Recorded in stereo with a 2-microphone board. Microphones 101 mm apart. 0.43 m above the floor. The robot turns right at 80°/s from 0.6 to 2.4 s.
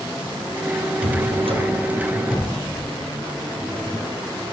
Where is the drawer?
105° right, 5.5 m; by 4.1 s 5° left, 5.5 m.